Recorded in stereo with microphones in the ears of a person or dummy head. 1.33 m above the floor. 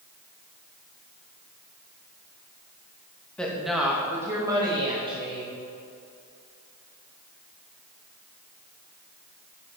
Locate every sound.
3.4 s a woman speaking: 5° left (ahead or behind), 1.9 m; by 5.6 s 35° right (ahead or behind), 3 m